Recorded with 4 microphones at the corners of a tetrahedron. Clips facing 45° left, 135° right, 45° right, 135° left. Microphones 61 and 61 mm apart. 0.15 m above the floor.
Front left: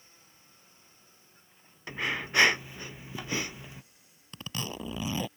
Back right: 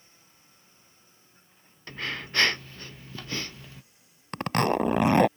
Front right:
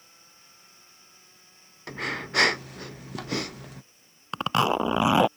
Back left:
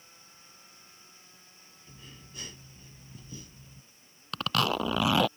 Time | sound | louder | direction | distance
1.9 | breathing | front left 2 dB, front right 22 dB | 30° right | ?
4.3 | a zipper | back right 14 dB, front right 5 dB | 110° right | ?